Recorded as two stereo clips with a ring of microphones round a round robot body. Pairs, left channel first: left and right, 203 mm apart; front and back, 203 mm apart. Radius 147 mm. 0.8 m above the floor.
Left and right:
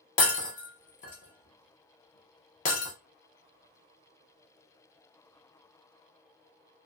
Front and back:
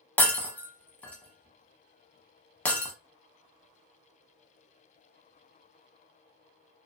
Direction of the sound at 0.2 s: 80° left.